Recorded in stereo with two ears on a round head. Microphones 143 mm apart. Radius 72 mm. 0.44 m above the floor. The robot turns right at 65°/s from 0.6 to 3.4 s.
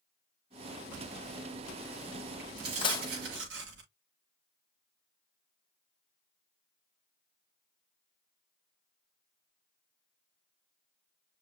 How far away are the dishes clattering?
About 1.3 m.